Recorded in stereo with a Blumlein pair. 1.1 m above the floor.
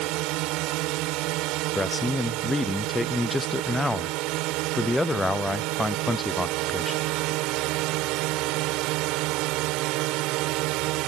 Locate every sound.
0.0 s a drone: 40° right
1.8 s a man speaking: 5° left